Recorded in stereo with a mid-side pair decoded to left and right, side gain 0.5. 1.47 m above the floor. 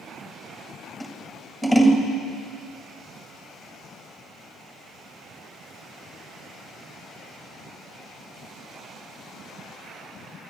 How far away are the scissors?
About 2.0 m.